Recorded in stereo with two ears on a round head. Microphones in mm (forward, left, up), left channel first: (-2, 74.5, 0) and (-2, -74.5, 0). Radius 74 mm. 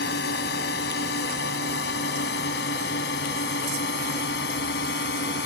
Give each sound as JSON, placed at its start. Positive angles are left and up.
{"t": 0.0, "sound": "a drone", "side_deg": 70}